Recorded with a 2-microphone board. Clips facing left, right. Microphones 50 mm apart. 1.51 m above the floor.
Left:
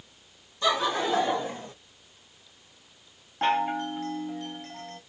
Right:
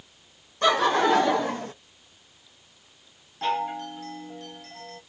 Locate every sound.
0.6 s laughter: 55° right (ahead or behind), 1.2 m; by 1.7 s 90° right, 0.9 m
3.4 s a chime: 35° left (ahead or behind), 0.9 m